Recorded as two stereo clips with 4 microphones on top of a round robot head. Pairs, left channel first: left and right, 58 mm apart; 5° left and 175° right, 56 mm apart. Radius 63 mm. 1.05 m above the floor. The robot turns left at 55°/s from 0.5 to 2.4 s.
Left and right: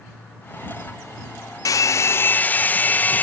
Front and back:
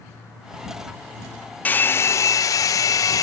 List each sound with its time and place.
1.6 s a hair dryer: 70° left; by 3.2 s 30° left